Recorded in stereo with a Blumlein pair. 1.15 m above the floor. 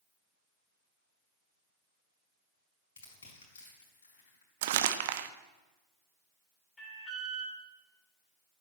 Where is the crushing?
65° left, 5 m.